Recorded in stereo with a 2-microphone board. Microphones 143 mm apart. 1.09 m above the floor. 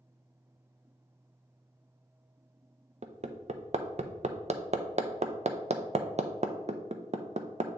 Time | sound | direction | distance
3.0 | hammering | 50° right (ahead or behind) | 0.5 m